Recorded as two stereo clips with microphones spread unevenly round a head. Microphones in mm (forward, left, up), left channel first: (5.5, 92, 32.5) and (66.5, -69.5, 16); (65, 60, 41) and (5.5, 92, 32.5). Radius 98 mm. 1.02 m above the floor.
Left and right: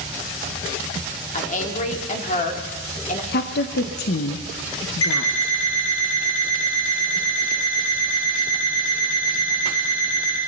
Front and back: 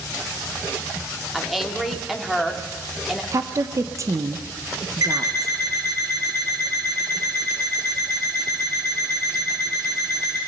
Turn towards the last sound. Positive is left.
turn(degrees=120)